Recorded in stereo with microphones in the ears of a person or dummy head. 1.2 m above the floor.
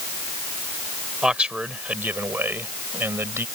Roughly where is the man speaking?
Centre.